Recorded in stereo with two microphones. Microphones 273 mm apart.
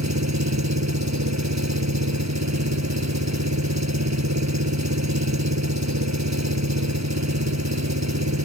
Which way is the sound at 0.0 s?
85° right.